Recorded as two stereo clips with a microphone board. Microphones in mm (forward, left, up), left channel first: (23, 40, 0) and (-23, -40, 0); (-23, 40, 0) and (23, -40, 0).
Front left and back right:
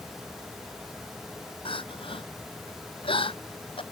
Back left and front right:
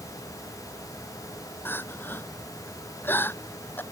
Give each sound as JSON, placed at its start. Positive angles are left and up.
{"t": 1.6, "sound": "crying", "azimuth_deg": 55}